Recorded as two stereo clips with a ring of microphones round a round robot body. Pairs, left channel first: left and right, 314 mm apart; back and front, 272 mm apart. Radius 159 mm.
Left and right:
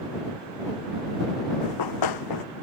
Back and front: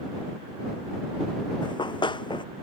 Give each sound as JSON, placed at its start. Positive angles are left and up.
{"t": 1.6, "sound": "running footsteps", "azimuth_deg": 105}